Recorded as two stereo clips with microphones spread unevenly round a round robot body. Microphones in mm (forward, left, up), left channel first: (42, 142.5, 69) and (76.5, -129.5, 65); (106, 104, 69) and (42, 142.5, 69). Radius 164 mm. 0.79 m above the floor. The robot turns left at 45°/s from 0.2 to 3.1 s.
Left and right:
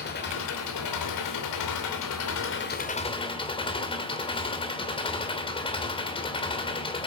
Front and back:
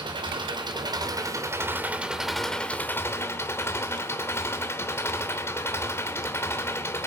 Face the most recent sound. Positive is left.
turn(degrees=25)